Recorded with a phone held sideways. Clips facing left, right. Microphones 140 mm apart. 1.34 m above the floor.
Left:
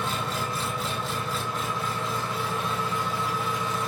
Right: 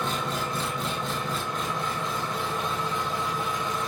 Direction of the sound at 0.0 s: 5° left (ahead or behind).